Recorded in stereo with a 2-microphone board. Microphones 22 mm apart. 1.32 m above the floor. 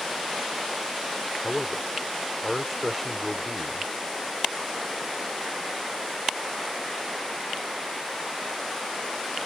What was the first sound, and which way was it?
A man speaking, centre (ahead or behind).